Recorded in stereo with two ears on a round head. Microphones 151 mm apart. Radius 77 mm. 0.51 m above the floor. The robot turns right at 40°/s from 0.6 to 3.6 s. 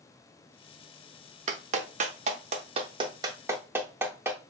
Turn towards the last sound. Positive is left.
turn(degrees=-15)  # may be behind; listen again after turning